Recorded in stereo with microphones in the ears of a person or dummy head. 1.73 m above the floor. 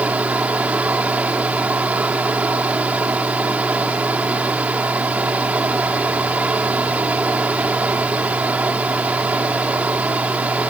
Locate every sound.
0.0 s running water: 10° right (ahead or behind)